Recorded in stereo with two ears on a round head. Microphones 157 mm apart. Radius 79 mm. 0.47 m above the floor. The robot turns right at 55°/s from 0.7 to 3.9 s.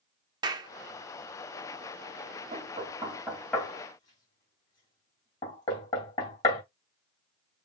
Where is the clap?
25° right (ahead or behind), 0.7 m.